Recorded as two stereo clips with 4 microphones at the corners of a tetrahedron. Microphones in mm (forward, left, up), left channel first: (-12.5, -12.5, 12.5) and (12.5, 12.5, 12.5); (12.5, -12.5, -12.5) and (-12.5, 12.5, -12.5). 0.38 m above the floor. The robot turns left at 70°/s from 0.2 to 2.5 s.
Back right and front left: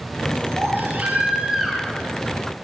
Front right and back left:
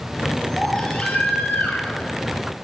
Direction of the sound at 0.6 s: 40° left.